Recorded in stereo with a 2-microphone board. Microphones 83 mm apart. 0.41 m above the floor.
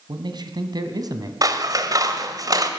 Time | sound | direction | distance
0.1 | a man speaking | 60° right (ahead or behind) | 3 m
1.4 | scissors | 50° right (ahead or behind) | 2.5 m